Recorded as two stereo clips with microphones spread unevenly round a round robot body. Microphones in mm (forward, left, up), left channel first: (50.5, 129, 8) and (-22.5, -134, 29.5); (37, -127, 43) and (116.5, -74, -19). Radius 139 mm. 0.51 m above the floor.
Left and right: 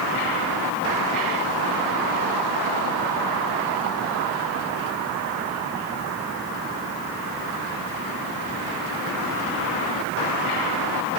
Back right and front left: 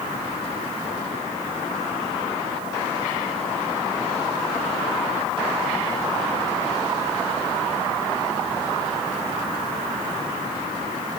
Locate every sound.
Only background noise.